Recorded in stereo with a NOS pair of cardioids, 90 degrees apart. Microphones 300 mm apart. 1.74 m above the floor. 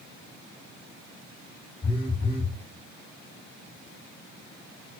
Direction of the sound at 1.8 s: 20° left.